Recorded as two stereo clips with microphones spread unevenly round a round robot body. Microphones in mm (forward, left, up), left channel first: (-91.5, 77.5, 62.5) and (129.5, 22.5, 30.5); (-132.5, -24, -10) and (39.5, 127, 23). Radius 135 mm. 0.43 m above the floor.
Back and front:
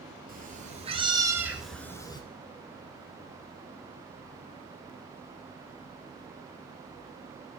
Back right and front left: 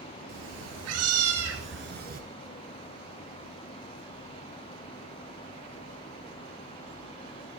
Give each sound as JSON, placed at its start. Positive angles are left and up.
{"t": 0.3, "sound": "a cat meowing", "azimuth_deg": 40, "distance_m": 2.5}